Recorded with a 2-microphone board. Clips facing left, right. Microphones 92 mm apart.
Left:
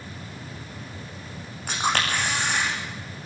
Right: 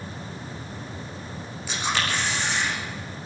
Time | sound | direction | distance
1.7 | a camera shutter | 55° left (ahead or behind) | 6 m